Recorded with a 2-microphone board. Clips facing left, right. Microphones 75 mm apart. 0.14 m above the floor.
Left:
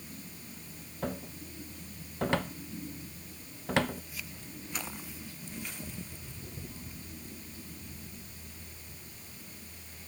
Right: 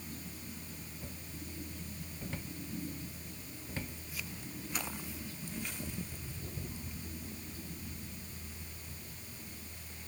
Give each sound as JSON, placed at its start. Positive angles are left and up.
{"t": 1.0, "sound": "a cupboard door", "side_deg": 85}